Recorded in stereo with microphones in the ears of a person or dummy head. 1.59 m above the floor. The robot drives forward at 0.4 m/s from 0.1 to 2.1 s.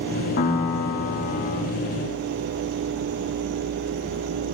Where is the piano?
45° left (ahead or behind), 1.5 m; by 1.6 s 40° left (ahead or behind), 1.6 m.